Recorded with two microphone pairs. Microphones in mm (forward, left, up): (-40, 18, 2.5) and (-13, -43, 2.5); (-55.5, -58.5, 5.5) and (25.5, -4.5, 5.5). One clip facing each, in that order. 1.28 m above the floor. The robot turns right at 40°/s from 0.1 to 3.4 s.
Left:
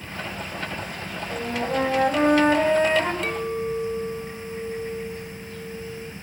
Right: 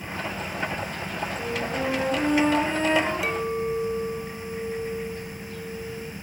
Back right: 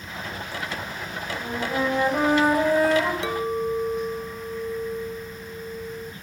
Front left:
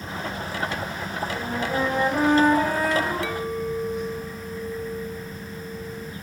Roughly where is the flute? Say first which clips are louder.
Left 6 dB, even; left.